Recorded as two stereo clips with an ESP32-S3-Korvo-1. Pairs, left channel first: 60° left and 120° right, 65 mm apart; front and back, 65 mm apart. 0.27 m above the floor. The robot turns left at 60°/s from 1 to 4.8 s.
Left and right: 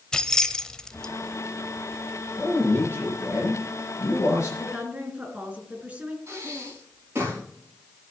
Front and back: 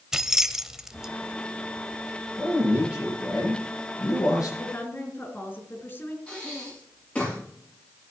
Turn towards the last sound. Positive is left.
turn(degrees=-70)